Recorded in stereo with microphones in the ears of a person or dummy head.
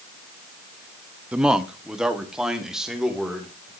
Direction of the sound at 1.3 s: 5° right (ahead or behind).